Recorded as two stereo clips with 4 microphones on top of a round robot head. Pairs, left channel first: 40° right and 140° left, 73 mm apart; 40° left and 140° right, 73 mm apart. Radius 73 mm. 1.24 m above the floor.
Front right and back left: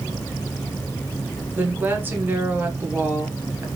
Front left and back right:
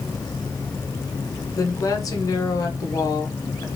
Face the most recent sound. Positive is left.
turn(degrees=75)